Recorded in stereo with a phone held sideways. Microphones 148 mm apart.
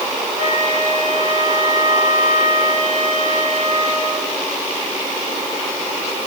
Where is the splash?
No splash in this recording.